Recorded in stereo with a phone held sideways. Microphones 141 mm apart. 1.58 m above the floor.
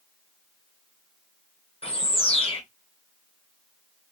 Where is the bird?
40° left (ahead or behind), 1.4 m.